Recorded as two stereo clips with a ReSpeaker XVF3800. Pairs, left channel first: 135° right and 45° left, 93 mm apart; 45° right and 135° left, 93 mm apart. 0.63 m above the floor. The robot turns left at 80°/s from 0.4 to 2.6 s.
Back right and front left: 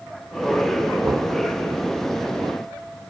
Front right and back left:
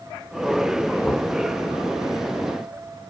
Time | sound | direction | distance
1.0 | knocking | 15° left | 1.3 m